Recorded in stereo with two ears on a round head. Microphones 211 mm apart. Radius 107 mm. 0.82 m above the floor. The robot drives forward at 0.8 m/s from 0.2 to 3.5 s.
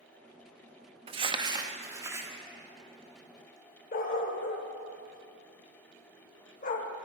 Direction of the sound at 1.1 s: 25° right (ahead or behind).